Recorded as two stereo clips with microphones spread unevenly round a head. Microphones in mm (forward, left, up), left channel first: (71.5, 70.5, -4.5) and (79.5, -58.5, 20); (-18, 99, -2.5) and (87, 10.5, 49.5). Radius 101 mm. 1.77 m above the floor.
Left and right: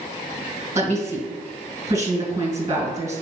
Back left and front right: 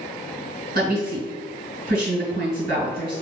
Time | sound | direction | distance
0.8 | a woman speaking | 50° right | 1.8 m